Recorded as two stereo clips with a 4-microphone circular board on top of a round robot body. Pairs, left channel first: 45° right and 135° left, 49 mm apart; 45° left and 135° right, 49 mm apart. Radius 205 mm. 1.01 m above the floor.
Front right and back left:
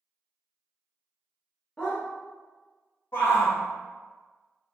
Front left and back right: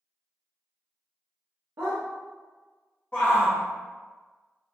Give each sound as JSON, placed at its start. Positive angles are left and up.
{"t": 1.8, "sound": "a dog barking", "azimuth_deg": -115, "distance_m": 0.5}
{"t": 3.1, "sound": "a shout", "azimuth_deg": -10, "distance_m": 1.1}